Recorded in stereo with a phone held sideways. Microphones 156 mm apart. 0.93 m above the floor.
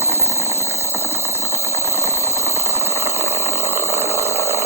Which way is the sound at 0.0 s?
15° right (ahead or behind).